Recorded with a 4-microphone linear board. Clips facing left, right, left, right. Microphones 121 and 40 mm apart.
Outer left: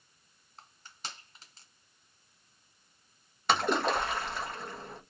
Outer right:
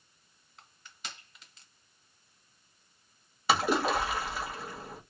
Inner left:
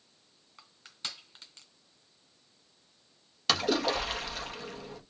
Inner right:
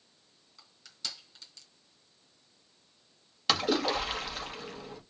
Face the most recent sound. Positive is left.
turn(degrees=-5)  # may be behind; listen again after turning